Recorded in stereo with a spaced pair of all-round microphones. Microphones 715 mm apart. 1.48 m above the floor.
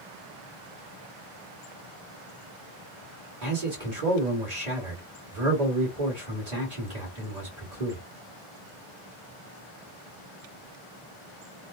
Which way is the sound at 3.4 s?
60° right (ahead or behind).